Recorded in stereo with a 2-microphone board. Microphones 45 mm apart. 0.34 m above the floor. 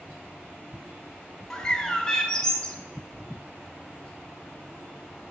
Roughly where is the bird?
Centre.